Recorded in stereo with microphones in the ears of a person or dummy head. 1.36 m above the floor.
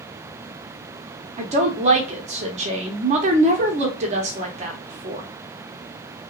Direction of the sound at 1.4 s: 40° right (ahead or behind).